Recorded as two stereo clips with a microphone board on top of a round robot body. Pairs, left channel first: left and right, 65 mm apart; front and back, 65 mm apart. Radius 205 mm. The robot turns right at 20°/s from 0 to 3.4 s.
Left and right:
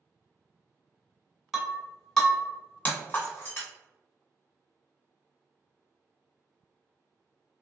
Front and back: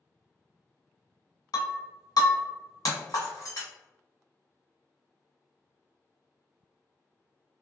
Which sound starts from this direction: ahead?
Breaking glass, at 1.5 s.